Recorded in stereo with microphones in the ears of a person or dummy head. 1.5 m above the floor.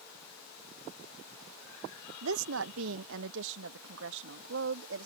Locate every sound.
2.2 s a woman speaking: 70° right (ahead or behind); by 5.1 s 65° right (ahead or behind)